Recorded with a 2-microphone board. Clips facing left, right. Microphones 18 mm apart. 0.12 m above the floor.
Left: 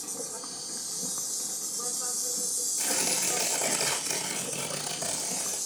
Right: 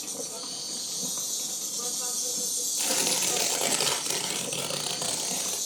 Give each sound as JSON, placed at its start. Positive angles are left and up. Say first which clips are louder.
{"t": 0.0, "sound": "an insect", "louder": "right 2 dB", "side_deg": -60, "distance_m": 1.1}
{"t": 2.8, "sound": "tearing paper", "louder": "right 3 dB", "side_deg": -50, "distance_m": 1.9}